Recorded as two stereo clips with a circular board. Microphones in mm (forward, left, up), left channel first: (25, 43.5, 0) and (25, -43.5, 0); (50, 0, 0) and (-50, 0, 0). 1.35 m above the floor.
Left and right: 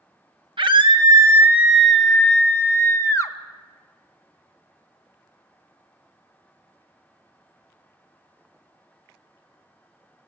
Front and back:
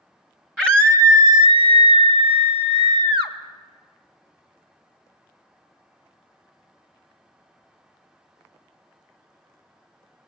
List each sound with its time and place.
0.6 s a scream: 110° right, 1.0 m; by 3.3 s 145° left, 1.8 m